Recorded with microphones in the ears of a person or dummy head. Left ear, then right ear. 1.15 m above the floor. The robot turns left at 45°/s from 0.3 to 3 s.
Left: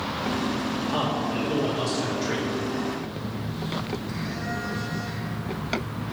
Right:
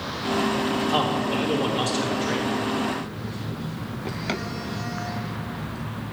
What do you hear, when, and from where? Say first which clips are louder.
0.9 s a man speaking: right 1 dB; 90° right, 2 m; by 2.5 s 165° right, 2 m
2.9 s a phone buzzing: right 1 dB; 25° right (ahead or behind), 2.5 m